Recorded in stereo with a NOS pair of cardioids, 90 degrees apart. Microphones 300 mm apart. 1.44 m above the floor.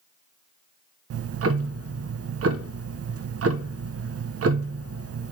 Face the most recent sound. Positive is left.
turn(degrees=-50)